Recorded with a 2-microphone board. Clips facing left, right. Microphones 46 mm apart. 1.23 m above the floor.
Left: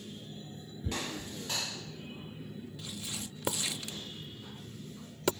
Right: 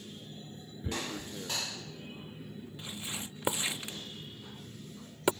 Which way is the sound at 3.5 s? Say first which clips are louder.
Right 2 dB; 20° right (ahead or behind).